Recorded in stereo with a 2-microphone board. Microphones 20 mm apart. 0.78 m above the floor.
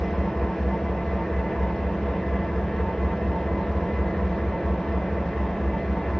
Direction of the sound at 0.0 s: 50° left (ahead or behind).